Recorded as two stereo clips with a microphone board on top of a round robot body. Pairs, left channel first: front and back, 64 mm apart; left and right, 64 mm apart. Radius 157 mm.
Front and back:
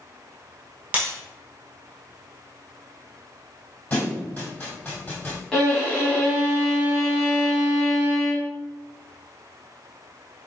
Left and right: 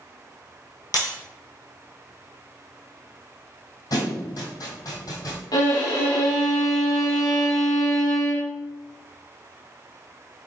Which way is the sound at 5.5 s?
80° left.